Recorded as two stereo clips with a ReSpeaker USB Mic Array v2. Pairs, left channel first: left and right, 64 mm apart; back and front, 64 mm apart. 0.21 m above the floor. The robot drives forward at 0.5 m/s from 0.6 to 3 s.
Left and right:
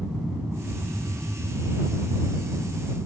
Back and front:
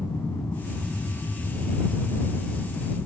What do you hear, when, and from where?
0.0 s an aircraft: 150° right; by 3.1 s 155° right